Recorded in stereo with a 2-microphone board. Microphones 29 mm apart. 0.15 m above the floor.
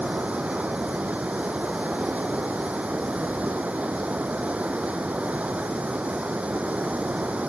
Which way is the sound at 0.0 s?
60° right (ahead or behind).